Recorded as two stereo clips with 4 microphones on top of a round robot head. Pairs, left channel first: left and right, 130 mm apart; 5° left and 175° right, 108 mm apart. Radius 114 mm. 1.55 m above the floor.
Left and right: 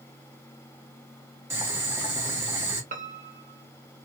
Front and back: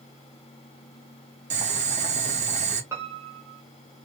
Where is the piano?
100° right, 0.7 m.